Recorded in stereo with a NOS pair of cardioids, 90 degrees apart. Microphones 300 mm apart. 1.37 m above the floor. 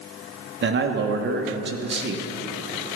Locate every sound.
0.6 s a man speaking: 40° right, 1.3 m